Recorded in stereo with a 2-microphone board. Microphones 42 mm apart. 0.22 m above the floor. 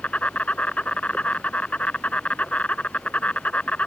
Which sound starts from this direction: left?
An insect, at 0.0 s.